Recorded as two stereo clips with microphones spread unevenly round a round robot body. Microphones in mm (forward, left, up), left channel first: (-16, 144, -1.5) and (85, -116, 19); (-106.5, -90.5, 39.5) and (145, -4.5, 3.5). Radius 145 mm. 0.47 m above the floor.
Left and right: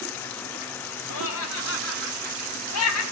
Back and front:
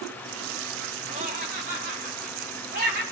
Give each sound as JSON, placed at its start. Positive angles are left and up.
{"t": 1.1, "sound": "laughter", "azimuth_deg": 80, "distance_m": 3.0}